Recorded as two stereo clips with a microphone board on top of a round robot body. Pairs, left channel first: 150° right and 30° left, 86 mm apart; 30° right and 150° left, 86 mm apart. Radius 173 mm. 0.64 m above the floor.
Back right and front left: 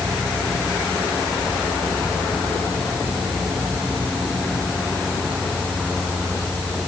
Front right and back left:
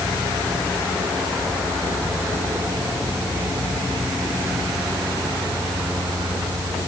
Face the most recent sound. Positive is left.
No sound to turn to.